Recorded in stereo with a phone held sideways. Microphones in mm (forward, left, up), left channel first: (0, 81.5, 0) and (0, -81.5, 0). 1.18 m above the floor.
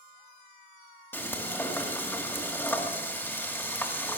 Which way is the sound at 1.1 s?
15° left (ahead or behind).